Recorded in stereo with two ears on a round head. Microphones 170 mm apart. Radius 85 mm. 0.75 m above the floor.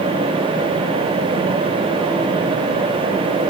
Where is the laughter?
No laughter in this recording.